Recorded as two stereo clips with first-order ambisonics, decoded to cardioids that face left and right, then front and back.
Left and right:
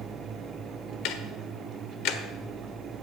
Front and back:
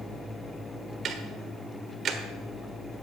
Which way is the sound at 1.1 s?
120° left.